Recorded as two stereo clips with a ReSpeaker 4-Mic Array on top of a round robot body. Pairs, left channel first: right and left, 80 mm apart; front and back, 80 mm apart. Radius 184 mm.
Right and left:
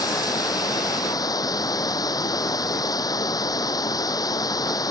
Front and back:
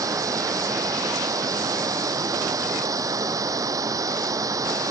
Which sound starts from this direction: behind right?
Running water, at 0.0 s.